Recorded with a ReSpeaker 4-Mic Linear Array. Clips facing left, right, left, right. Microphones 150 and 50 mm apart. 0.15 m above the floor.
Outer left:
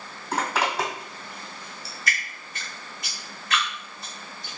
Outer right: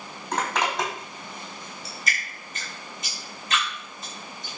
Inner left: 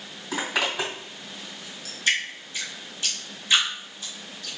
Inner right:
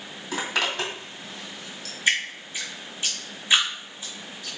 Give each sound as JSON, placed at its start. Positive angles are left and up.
{"t": 0.3, "sound": "a zipper", "side_deg": 5, "distance_m": 2.5}
{"t": 2.1, "sound": "dripping", "side_deg": -20, "distance_m": 2.5}